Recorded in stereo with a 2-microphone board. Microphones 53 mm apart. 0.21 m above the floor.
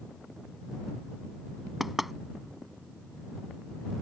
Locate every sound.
1.8 s knocking: 5° right (ahead or behind)